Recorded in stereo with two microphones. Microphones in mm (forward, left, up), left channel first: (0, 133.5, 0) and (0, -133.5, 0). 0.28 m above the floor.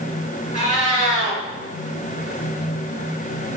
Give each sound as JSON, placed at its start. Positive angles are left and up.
{"t": 0.5, "sound": "a cat meowing", "side_deg": 30, "distance_m": 2.0}